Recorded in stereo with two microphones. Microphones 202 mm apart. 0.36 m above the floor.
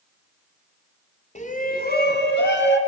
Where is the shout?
35° left (ahead or behind), 2 m; by 2.8 s 65° left (ahead or behind), 3.5 m.